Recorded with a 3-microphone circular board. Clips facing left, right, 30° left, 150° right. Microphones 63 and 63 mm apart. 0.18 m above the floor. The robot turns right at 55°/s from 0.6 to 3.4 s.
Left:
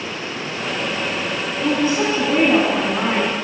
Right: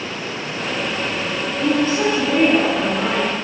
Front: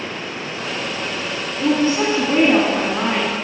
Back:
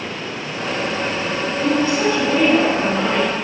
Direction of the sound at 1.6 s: 20° left.